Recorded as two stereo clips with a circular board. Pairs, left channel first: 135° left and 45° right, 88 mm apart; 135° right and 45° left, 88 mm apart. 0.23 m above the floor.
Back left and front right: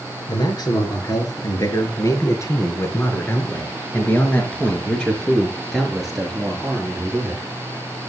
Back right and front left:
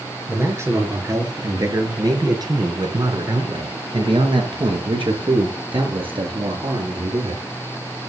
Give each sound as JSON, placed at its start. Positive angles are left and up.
{"t": 0.3, "sound": "a man speaking", "azimuth_deg": 105, "distance_m": 4.5}